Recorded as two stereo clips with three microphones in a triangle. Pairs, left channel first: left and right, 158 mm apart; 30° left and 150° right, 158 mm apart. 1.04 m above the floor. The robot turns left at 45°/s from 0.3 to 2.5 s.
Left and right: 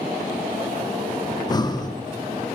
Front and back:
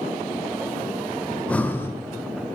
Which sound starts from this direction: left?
Breathing, at 1.3 s.